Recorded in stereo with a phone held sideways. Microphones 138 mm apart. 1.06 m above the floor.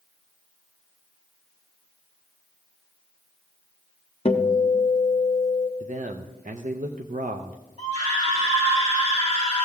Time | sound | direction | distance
4.2 | a guitar | 45° left (ahead or behind) | 0.7 m
5.8 | a man speaking | 65° right (ahead or behind) | 0.6 m
7.8 | a scream | 55° right (ahead or behind) | 3.5 m